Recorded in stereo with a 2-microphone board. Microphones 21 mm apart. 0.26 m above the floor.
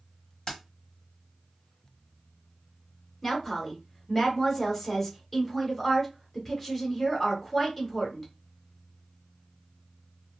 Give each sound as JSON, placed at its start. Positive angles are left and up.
{"t": 0.5, "sound": "keys jangling", "side_deg": 40, "distance_m": 1.1}
{"t": 3.2, "sound": "a woman speaking", "side_deg": 10, "distance_m": 1.0}